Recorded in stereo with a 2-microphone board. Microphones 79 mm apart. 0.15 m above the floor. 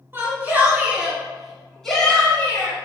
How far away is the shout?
About 1.6 m.